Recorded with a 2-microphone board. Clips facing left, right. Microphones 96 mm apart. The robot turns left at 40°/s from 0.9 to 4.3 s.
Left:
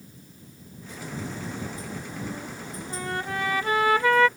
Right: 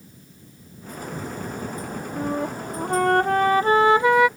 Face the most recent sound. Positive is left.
turn(degrees=-170)